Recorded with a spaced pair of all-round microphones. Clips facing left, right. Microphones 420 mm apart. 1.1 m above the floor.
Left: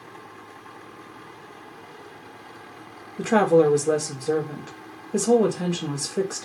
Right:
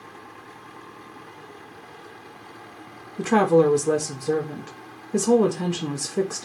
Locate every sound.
3.2 s a woman speaking: 10° right (ahead or behind), 0.6 m